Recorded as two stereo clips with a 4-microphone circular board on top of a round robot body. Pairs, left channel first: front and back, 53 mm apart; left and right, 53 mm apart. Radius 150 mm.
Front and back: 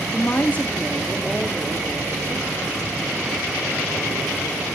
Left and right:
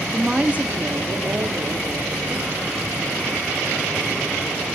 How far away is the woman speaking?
About 1.1 m.